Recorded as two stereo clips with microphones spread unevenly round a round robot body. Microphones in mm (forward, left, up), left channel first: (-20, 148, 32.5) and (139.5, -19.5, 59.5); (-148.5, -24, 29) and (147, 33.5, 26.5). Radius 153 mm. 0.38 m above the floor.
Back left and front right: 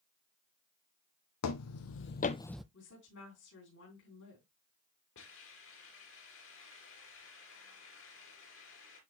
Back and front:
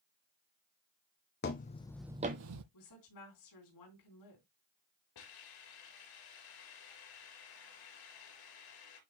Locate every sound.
1.4 s footsteps: 135° left, 1.1 m; by 2.6 s 35° left, 0.7 m
2.7 s a woman speaking: 175° left, 3.5 m
5.2 s a hiss: straight behind, 3.5 m